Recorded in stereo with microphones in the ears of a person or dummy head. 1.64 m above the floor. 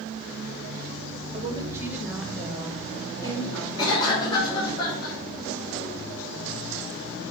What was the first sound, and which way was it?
A woman speaking, 30° right (ahead or behind).